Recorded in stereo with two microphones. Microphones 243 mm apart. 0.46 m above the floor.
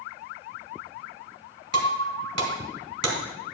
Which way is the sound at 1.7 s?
85° right.